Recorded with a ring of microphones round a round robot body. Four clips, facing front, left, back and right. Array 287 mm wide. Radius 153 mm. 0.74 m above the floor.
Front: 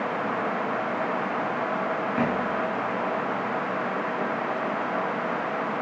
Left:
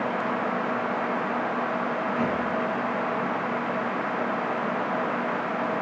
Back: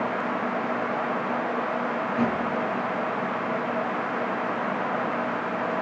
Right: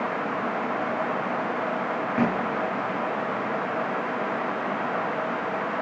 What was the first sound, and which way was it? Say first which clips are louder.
A thud: right 5 dB, back 1 dB; 60° right.